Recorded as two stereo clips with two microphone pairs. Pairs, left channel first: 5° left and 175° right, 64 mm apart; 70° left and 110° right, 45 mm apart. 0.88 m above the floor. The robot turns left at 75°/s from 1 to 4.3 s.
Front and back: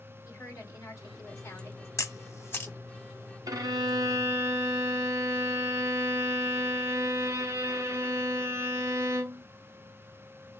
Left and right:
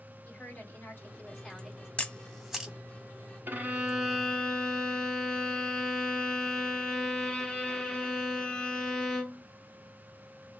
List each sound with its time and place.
0.2 s a woman speaking: 20° left, 2.0 m; by 1.9 s 45° right, 2.0 m
2.0 s a camera shutter: 5° left, 0.9 m; by 2.7 s 50° right, 0.9 m
3.5 s a violin: 155° right, 0.8 m; by 9.4 s 140° left, 0.8 m